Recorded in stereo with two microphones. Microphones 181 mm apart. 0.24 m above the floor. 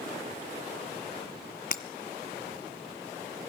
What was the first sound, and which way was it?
Breaking glass, 50° left (ahead or behind).